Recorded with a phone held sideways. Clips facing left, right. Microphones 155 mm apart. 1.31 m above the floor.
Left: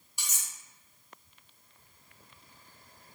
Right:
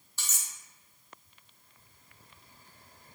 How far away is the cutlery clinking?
About 0.6 m.